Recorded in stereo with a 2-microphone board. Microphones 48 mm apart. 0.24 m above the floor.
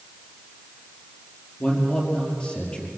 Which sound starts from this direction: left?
A man speaking, at 1.6 s.